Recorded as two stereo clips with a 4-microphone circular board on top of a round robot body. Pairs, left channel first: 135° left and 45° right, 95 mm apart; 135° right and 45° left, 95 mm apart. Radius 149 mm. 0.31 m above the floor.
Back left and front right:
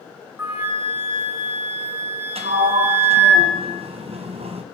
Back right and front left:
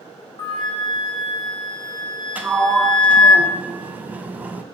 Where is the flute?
110° right, 2.5 m.